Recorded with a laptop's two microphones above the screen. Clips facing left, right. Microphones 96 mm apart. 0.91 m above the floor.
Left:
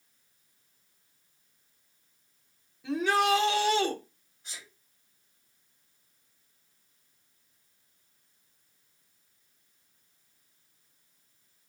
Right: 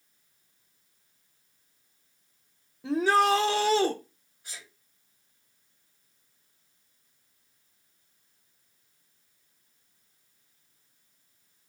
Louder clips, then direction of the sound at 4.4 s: Right 1 dB; 10° right (ahead or behind).